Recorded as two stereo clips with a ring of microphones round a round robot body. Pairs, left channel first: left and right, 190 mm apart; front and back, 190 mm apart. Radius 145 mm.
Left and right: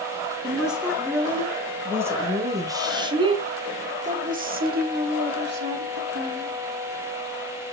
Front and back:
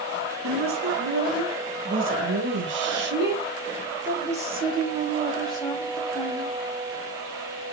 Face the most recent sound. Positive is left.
turn(degrees=-60)